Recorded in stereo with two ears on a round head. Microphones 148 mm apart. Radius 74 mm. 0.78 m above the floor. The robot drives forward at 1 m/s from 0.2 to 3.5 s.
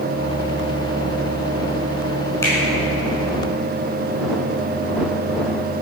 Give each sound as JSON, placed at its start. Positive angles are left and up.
{"t": 2.4, "sound": "a finger snap", "side_deg": 15, "distance_m": 5.5}